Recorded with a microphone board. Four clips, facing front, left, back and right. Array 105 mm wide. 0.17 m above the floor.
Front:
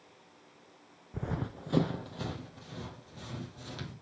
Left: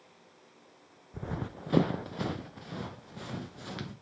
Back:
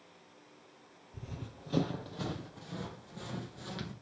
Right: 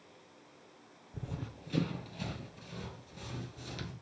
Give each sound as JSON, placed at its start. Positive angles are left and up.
{"t": 1.1, "sound": "running footsteps", "azimuth_deg": 20, "distance_m": 0.5}